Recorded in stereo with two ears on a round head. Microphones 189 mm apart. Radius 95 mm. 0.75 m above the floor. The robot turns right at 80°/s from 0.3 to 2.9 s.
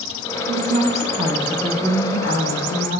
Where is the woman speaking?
80° right, 1.0 m; by 3.0 s 115° left, 1.0 m.